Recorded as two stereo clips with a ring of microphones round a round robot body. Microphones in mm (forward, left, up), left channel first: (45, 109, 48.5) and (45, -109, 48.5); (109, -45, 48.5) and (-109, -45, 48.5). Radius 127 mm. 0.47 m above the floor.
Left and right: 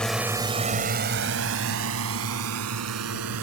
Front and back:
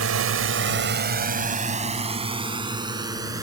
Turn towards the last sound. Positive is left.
turn(degrees=-105)